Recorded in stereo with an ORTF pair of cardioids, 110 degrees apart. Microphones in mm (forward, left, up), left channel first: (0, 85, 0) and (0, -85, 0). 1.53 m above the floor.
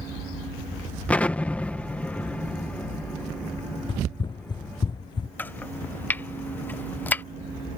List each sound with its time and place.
1.1 s an explosion: 10° left
3.9 s running footsteps: 30° left
5.4 s chopping: 10° left